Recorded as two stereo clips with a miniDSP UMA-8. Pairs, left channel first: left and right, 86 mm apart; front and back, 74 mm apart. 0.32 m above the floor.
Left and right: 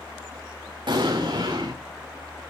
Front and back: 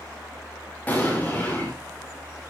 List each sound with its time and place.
0.9 s an explosion: 70° right, 5 m